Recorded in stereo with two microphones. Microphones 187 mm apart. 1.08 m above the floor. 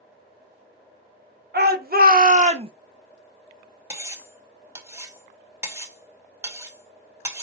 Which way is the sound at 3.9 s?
15° right (ahead or behind).